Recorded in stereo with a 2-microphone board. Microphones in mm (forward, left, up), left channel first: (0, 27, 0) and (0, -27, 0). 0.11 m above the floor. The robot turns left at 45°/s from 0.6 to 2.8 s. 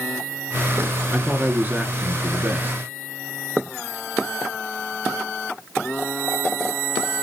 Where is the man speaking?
40° right, 1.3 m; by 2.8 s 115° right, 1.3 m.